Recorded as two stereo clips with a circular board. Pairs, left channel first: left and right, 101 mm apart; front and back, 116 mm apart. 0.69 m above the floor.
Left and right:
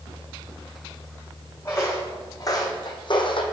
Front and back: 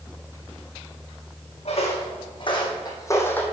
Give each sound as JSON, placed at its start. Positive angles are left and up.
{"t": 1.6, "sound": "footsteps", "azimuth_deg": 25, "distance_m": 2.5}